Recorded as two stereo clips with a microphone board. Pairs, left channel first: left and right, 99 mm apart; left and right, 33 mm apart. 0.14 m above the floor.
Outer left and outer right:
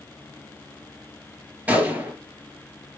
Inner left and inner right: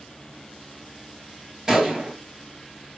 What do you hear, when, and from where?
1.7 s a gunshot: 15° right (ahead or behind), 3 m